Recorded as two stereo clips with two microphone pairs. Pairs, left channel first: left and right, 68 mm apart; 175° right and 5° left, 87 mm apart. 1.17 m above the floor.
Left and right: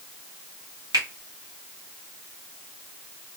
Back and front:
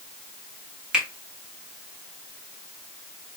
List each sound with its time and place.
0.9 s a finger snap: 75° right, 1.6 m